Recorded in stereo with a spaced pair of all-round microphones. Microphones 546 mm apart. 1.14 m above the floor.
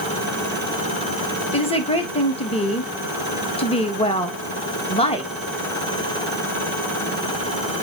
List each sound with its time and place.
1.5 s a woman speaking: 10° left (ahead or behind), 1.6 m